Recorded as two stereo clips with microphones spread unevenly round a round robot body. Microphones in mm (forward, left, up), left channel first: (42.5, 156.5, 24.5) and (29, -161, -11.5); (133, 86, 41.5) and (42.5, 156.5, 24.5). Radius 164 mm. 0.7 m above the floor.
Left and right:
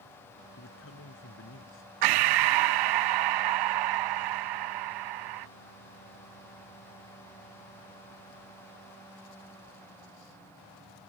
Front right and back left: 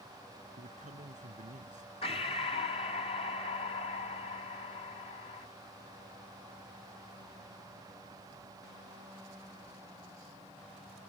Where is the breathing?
105° right.